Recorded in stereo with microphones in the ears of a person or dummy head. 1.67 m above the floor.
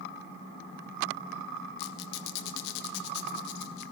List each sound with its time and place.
1.8 s a squeak: 60° left (ahead or behind), 1.7 m